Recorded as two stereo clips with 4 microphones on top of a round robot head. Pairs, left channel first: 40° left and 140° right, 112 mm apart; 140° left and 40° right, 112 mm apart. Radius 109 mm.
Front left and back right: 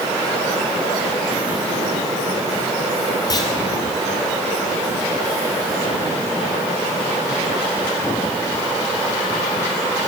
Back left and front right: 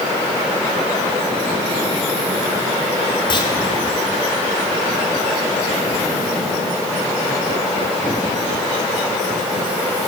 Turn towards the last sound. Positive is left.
turn(degrees=95)